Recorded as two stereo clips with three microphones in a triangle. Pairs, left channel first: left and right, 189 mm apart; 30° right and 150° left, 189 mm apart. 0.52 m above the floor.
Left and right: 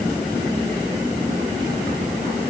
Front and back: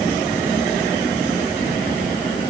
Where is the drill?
No drill in this recording.